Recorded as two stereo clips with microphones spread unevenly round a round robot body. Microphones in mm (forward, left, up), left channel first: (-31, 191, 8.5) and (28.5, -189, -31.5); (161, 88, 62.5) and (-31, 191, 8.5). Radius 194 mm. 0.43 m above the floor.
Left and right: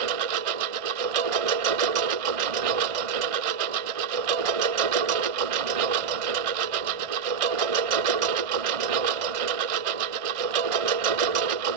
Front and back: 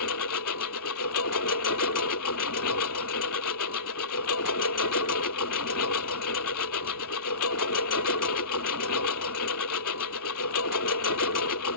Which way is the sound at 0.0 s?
75° right.